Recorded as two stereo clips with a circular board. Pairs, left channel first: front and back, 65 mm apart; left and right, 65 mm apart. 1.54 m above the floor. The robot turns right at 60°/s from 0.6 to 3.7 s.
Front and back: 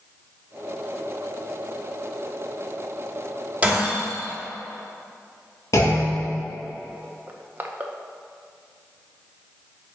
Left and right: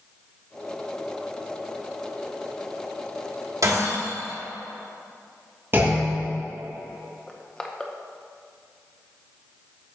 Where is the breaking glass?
110° right, 1.9 m; by 4.4 s 105° right, 1.9 m.